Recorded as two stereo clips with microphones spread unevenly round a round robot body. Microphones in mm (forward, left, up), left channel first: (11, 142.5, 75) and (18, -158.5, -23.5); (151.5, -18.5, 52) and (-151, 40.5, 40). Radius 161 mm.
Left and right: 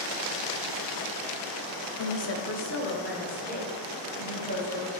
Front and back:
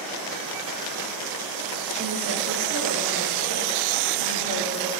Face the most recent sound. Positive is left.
turn(degrees=160)